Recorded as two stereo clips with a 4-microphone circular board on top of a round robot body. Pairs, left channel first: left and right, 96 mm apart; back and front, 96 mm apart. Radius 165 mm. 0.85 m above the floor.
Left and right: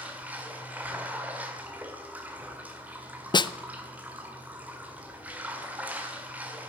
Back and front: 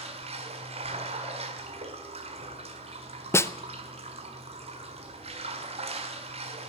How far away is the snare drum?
About 0.8 m.